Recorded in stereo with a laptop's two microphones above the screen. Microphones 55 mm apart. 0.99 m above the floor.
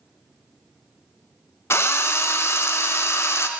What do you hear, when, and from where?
1.7 s a drill: 50° left (ahead or behind), 0.5 m